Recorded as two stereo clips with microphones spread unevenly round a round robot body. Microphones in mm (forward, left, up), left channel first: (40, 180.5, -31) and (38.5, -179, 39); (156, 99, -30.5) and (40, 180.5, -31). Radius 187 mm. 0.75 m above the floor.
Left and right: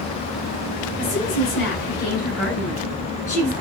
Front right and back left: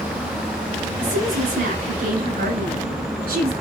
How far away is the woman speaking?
About 5.5 m.